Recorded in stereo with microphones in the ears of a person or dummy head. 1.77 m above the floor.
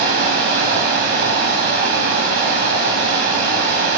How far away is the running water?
About 2.5 m.